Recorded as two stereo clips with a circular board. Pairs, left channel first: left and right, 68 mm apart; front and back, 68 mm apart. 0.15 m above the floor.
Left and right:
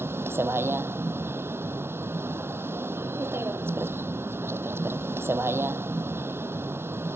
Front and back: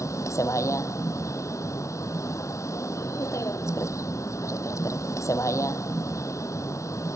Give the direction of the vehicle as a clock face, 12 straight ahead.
1 o'clock.